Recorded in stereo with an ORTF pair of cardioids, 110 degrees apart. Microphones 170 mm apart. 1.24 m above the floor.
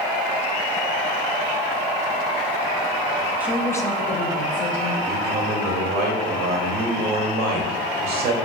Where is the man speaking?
65° right, 1.0 m.